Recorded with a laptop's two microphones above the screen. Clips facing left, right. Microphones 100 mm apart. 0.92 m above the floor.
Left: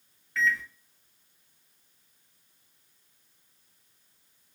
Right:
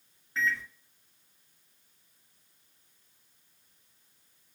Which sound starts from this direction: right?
A microwave, at 0.4 s.